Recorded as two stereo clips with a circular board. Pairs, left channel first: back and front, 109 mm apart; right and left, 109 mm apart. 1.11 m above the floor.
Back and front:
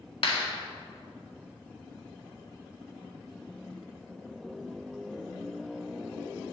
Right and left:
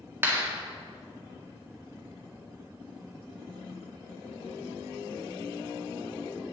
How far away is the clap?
About 2.0 m.